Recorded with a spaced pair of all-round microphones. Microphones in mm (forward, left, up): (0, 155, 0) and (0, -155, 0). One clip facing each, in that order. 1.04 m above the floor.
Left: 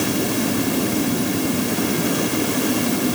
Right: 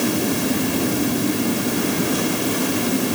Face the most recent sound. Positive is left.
No sound to turn to.